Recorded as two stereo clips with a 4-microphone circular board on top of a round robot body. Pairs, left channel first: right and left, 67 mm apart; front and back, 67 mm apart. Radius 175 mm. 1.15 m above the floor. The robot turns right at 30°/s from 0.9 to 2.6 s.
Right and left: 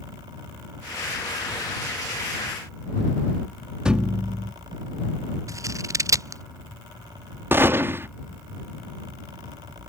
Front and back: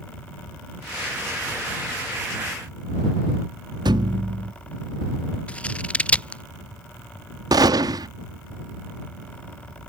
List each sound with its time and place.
3.9 s a thud: 170° left
5.5 s scissors: 70° left
7.5 s a gunshot: 150° left